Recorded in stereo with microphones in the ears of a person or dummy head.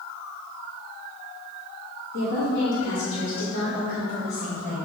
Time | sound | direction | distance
2.1 | a woman speaking | 80° left | 3 m